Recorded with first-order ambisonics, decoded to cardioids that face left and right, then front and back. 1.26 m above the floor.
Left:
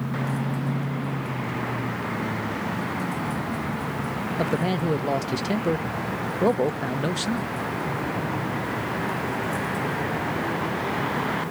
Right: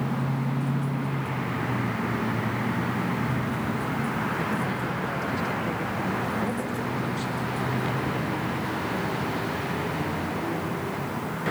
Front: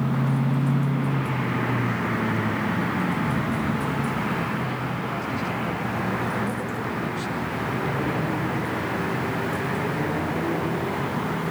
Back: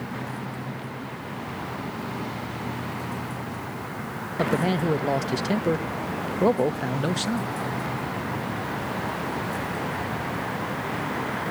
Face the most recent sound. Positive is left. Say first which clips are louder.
# left 3 dB, back 3 dB
turn(degrees=135)